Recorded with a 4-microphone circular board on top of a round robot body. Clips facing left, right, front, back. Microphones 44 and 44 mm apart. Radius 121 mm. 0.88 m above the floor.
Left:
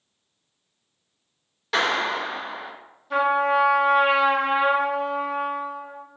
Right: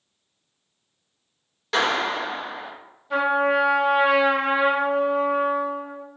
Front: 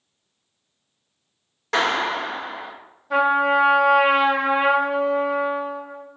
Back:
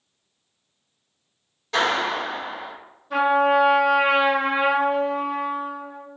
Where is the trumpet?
5° right, 1.2 m.